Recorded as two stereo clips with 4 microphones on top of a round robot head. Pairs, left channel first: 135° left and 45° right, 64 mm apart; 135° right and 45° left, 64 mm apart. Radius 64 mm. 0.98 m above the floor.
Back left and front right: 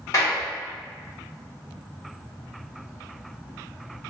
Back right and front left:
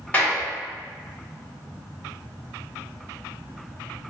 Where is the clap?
160° left, 1.5 m.